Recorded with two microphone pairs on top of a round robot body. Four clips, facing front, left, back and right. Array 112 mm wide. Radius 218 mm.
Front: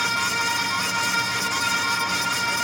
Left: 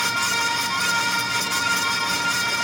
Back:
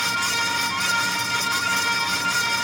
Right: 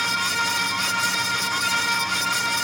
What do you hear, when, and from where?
Only background noise.